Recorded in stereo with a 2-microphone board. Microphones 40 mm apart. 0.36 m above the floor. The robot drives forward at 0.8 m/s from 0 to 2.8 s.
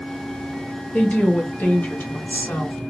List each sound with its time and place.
0.9 s a woman speaking: 30° left (ahead or behind), 1.8 m; by 2.8 s 45° left (ahead or behind), 1.4 m